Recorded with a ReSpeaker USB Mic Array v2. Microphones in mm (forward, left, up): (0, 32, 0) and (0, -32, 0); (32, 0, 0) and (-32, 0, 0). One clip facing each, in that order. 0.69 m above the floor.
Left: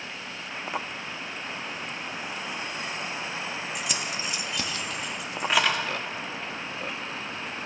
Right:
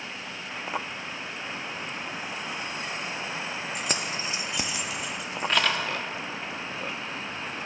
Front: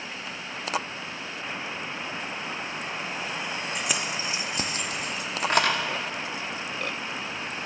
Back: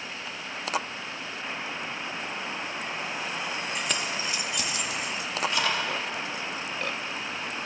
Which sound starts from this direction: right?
Keys jangling, at 3.8 s.